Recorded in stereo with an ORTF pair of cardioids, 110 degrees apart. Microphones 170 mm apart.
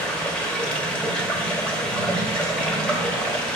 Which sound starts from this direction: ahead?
Running water, at 0.0 s.